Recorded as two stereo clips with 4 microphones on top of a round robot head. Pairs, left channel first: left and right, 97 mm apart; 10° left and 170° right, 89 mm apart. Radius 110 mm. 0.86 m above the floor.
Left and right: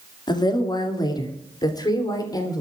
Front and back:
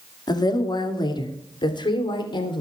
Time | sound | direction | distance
0.3 | a woman speaking | 50° left | 2 m